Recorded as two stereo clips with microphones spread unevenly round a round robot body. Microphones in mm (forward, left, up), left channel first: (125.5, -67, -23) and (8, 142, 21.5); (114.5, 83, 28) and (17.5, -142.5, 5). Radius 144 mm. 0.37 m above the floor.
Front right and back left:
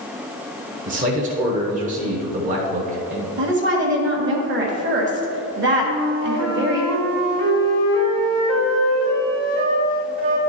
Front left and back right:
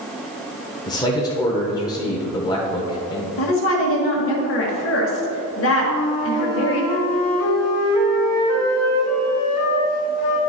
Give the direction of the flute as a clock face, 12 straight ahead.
9 o'clock.